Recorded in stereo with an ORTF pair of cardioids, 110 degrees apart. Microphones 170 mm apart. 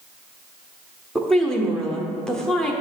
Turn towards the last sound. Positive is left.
turn(degrees=5)